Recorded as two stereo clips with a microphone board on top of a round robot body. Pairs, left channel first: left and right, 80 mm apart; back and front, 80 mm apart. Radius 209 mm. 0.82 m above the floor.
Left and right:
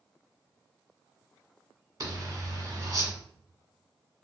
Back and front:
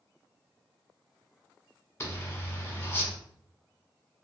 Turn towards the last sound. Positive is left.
turn(degrees=-130)